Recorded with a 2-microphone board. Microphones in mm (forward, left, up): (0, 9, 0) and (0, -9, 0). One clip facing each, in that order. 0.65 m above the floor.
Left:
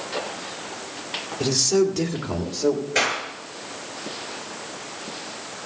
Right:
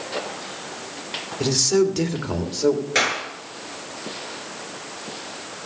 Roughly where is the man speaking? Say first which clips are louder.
Right 1 dB; centre.